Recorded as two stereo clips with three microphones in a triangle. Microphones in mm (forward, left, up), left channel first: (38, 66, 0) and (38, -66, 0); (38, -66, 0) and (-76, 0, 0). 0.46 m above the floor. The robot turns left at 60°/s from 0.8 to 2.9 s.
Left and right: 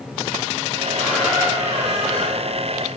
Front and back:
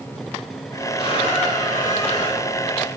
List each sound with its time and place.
1.0 s a squeak: 15° left, 3.5 m; by 2.5 s 75° right, 3.5 m